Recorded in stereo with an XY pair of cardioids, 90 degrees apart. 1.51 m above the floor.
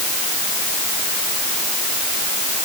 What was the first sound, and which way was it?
Only background noise.